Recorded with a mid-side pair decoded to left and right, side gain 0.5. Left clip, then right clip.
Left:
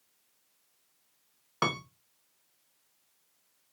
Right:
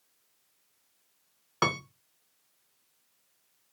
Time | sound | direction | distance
1.6 | a piano | 10° right | 0.5 m